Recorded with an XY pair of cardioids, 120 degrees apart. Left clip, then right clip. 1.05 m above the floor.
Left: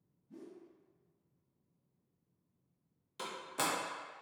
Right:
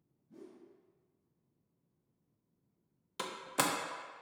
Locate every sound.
0.3 s a whoosh: 25° left, 1.2 m
3.2 s a door slam: 40° right, 0.5 m